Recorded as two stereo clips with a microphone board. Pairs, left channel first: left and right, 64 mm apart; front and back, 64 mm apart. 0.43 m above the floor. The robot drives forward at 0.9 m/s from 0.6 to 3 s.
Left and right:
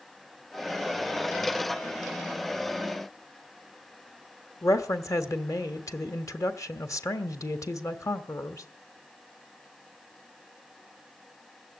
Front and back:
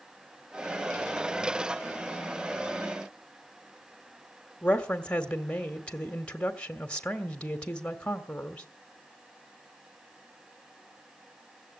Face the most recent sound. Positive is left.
turn(degrees=70)